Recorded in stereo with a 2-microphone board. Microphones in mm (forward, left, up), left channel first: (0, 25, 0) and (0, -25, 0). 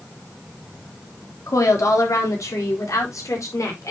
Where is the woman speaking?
80° left, 3 m; by 3.9 s 75° left (ahead or behind), 5 m.